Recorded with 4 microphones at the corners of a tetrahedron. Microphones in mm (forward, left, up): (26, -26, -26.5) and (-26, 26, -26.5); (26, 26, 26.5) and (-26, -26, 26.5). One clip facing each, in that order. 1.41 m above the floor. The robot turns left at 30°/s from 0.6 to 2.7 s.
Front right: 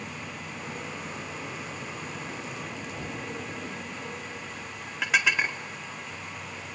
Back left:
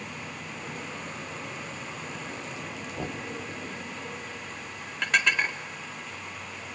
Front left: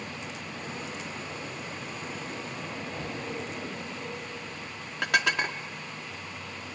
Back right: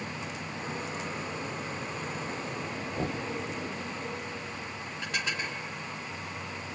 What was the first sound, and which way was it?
Knocking, 170° right.